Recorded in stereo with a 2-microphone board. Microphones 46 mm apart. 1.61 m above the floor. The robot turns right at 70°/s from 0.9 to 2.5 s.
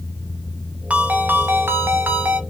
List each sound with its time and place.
0.9 s a ringtone: 145° right, 0.8 m; by 2.4 s 40° right, 0.8 m